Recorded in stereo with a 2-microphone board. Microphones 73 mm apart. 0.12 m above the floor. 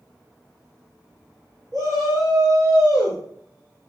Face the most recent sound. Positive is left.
turn(degrees=-60)  # may be behind; listen again after turning